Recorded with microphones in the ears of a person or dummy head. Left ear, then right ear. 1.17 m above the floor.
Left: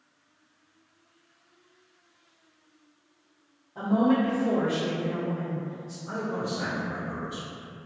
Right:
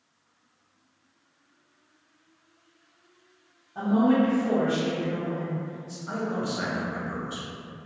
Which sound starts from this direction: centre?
A woman speaking, at 3.8 s.